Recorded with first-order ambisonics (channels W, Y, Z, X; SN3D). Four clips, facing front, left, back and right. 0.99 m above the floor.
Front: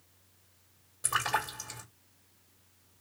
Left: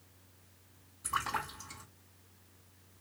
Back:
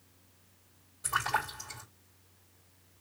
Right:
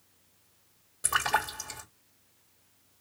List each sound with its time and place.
1.0 s a splash: 65° right, 2 m